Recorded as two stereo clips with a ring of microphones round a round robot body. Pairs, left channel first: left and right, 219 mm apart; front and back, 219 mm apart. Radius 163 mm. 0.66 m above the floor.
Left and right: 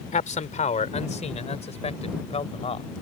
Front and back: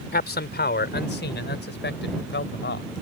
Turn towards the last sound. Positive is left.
turn(degrees=30)